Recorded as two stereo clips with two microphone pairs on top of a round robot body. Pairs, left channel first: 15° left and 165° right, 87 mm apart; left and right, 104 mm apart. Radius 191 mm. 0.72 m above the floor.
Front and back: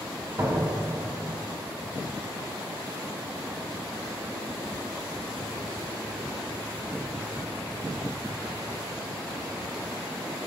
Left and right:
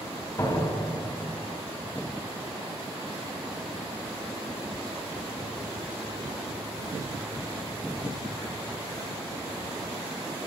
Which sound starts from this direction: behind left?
A door slam, at 0.4 s.